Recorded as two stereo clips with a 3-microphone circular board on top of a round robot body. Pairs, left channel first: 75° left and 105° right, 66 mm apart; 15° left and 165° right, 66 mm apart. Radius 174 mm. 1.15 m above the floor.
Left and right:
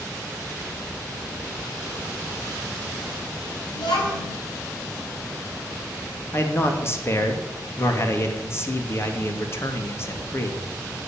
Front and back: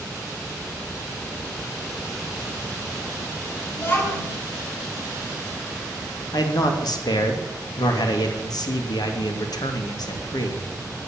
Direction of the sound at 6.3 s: 25° left.